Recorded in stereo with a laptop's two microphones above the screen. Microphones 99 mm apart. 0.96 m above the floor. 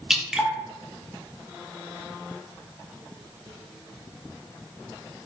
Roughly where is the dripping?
Centre.